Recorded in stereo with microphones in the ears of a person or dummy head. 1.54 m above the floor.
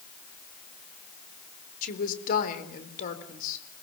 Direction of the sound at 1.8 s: 40° left (ahead or behind).